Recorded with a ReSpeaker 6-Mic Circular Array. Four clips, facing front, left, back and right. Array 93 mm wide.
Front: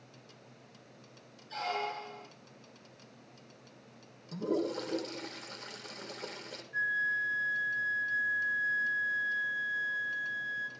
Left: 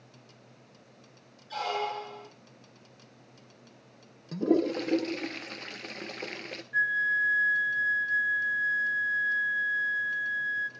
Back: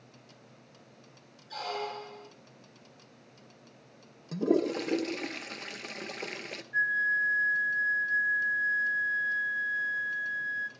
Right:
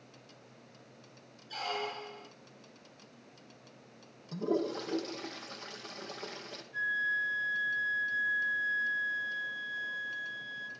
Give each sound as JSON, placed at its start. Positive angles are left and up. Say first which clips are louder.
{"t": 1.5, "sound": "a squeak", "louder": "left 6 dB, even", "azimuth_deg": 105, "distance_m": 1.4}
{"t": 4.3, "sound": "a toilet flushing", "louder": "left 7 dB, back 6 dB", "azimuth_deg": 135, "distance_m": 1.3}
{"t": 6.7, "sound": "a flute", "louder": "left 6 dB, back 4 dB", "azimuth_deg": 115, "distance_m": 2.0}